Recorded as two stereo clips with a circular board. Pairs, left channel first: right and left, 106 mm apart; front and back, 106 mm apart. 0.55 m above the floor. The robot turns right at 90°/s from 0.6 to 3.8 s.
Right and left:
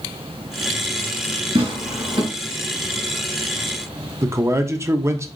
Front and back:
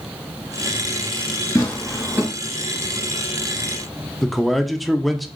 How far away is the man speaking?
About 0.6 m.